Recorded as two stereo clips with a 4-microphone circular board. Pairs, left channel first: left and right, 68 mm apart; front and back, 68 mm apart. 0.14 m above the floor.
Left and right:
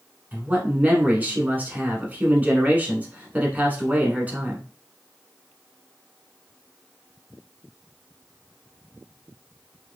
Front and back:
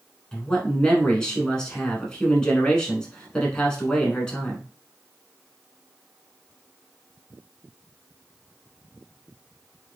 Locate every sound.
0.3 s a man speaking: 65° right, 1.1 m